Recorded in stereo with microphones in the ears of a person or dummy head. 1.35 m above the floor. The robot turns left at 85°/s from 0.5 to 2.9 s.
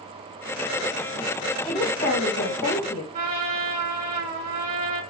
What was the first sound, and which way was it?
A woman speaking, 175° right.